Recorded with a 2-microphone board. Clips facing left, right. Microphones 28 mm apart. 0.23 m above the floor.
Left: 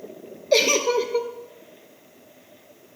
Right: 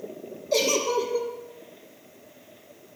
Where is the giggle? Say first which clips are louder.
Left 4 dB; 40° left (ahead or behind), 1.0 m.